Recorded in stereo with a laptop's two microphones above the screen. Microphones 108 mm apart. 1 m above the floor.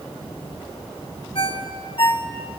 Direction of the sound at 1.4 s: 55° left (ahead or behind).